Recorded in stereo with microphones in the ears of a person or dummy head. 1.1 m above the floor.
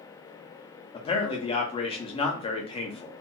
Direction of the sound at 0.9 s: 35° left (ahead or behind).